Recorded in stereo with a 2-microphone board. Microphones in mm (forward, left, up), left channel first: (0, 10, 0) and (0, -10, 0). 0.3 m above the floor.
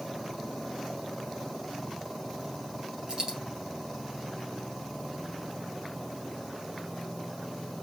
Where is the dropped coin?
45° right (ahead or behind), 2 m.